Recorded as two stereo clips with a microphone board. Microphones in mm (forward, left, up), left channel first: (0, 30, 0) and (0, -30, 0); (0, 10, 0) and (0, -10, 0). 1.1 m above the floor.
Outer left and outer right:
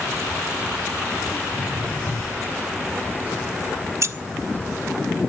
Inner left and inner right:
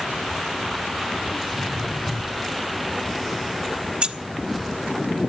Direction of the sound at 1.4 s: 40° left (ahead or behind).